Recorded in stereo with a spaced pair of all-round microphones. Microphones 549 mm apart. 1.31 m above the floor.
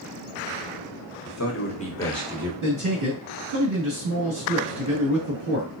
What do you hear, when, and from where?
1.2 s a man speaking: 40° left (ahead or behind), 0.9 m; by 2.5 s 5° right (ahead or behind), 1.4 m
2.6 s a man speaking: 60° right (ahead or behind), 2.0 m